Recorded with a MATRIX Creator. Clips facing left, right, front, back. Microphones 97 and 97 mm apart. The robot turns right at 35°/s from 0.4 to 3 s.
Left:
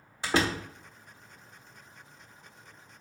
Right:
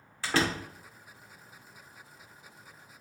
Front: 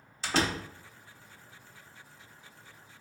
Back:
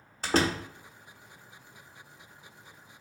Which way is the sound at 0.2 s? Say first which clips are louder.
Left 1 dB, back 3 dB; 155° left.